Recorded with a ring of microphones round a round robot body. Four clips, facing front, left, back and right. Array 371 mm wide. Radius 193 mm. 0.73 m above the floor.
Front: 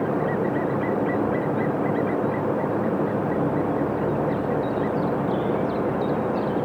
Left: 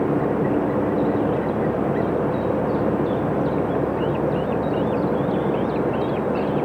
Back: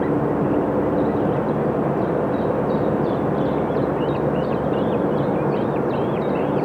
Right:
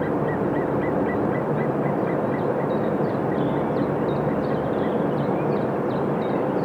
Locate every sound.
Only background noise.